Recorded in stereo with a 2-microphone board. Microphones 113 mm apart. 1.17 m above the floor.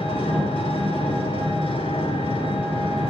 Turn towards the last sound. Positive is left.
turn(degrees=55)  # may be behind; listen again after turning